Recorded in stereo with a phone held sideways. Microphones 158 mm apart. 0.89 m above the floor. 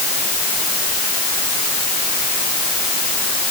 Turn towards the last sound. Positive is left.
No sound to turn to.